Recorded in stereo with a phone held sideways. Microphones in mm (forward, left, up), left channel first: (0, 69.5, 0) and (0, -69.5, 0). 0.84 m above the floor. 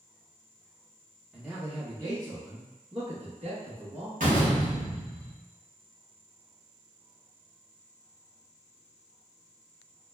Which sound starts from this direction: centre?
A man speaking, at 1.3 s.